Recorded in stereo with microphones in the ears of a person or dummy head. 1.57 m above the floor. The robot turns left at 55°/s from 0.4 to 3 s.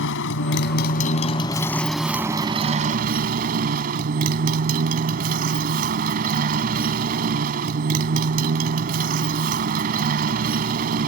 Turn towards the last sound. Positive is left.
turn(degrees=-60)